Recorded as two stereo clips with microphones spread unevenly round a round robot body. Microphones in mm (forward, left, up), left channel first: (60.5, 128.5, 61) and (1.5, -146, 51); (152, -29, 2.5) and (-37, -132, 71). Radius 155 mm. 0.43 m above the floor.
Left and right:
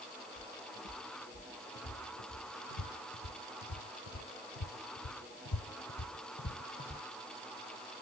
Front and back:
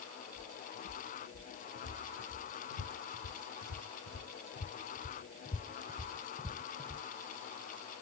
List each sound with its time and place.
0.4 s footsteps: 30° left, 2.5 m; by 7.0 s 145° left, 1.2 m